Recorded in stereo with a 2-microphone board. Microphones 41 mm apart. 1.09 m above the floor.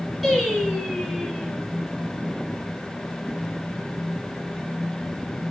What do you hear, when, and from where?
0.2 s singing: centre (ahead or behind), 3.5 m